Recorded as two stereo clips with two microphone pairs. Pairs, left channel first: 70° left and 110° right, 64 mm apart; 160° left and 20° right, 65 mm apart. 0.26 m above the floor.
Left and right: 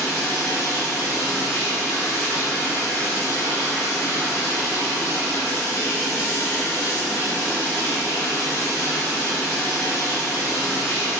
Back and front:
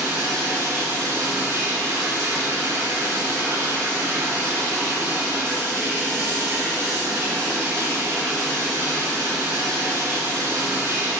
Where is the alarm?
I don't hear an alarm.